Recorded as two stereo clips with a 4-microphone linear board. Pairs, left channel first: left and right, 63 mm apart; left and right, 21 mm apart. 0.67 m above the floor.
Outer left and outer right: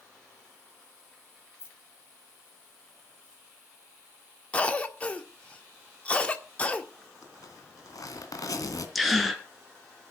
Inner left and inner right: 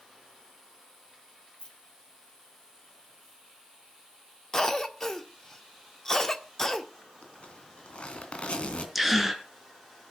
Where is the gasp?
Centre (ahead or behind), 2 m.